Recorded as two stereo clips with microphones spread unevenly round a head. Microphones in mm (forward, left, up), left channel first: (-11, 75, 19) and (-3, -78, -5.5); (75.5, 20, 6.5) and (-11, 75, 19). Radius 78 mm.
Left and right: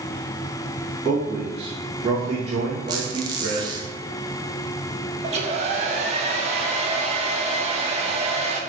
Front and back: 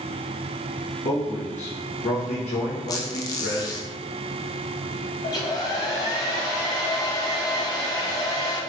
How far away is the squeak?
About 0.6 m.